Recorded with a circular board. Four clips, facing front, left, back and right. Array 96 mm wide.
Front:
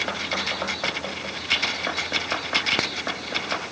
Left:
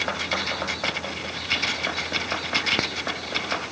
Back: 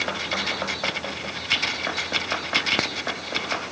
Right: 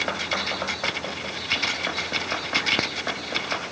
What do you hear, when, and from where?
Only background noise.